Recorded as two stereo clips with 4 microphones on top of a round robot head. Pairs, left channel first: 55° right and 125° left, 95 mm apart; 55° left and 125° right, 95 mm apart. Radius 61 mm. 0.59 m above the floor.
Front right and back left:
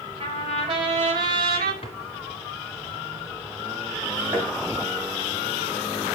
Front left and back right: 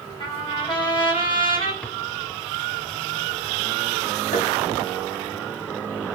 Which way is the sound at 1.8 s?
20° right.